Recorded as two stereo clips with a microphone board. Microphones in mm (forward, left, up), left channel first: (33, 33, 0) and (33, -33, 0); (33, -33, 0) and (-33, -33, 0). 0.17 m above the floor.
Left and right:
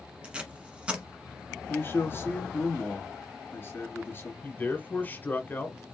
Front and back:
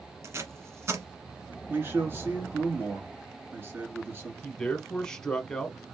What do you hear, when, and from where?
0.2 s tape being pulled: 155° right, 1.2 m
1.7 s a man speaking: 135° left, 2.5 m
4.4 s a man speaking: 70° left, 1.1 m